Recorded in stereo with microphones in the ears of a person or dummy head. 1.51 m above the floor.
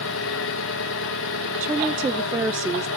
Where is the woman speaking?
10° right (ahead or behind), 0.5 m.